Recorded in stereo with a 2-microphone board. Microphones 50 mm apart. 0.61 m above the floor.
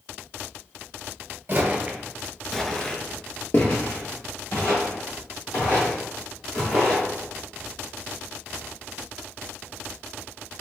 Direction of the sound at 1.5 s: 40° right (ahead or behind).